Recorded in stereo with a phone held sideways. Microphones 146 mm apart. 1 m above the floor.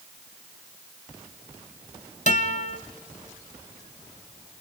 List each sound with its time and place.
2.3 s a guitar: 60° left (ahead or behind), 1.8 m